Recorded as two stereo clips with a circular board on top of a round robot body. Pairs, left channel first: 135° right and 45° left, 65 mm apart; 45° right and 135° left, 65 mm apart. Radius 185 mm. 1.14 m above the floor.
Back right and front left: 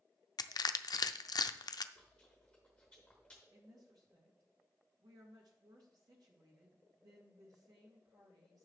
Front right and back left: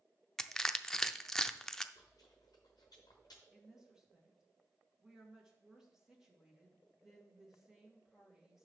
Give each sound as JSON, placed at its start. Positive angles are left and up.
{"t": 0.4, "sound": "crushing", "azimuth_deg": -125, "distance_m": 0.5}
{"t": 1.9, "sound": "chewing", "azimuth_deg": -55, "distance_m": 0.6}
{"t": 3.5, "sound": "a woman speaking", "azimuth_deg": 55, "distance_m": 2.5}